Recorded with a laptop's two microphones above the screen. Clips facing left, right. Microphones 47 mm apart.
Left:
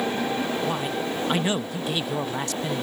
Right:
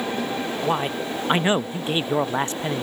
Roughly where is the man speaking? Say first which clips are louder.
Right 2 dB; right.